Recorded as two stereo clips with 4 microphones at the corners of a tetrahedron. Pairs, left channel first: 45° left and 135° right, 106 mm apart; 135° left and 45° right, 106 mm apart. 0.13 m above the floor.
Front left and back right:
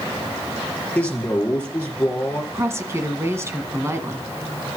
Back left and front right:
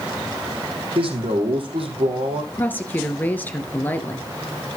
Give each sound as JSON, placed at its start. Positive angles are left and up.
{"t": 0.9, "sound": "a man speaking", "azimuth_deg": -30, "distance_m": 4.5}
{"t": 2.5, "sound": "a woman speaking", "azimuth_deg": -170, "distance_m": 1.7}